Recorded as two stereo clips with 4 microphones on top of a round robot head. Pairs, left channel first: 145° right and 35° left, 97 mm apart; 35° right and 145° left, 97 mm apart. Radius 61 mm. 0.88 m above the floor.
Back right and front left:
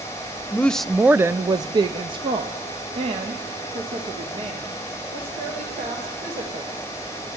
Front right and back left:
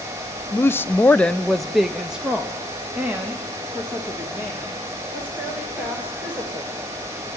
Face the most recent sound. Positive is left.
turn(degrees=70)